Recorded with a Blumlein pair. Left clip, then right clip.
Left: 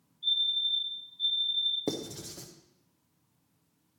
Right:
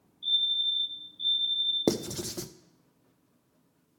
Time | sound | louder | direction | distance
0.2 | a fire alarm | right 1 dB | 10° right | 4 m
1.9 | writing | right 6 dB | 65° right | 0.6 m